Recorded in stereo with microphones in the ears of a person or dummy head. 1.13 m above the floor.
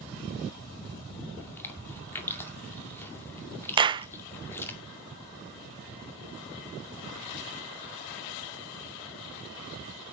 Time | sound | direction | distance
1.4 | chewing | 10° left (ahead or behind) | 2 m
3.8 | a clap | 25° right (ahead or behind) | 0.5 m